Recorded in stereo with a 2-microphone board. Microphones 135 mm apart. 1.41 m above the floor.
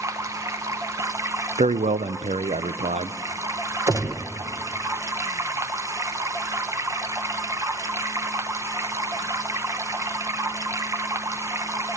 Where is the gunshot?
25° right (ahead or behind), 1.2 m.